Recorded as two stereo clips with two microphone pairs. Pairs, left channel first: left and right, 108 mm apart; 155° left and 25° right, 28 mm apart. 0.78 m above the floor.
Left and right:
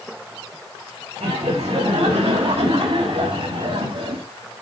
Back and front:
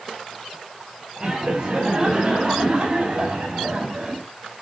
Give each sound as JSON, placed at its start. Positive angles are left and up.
{"t": 1.2, "sound": "laughter", "azimuth_deg": -85, "distance_m": 6.5}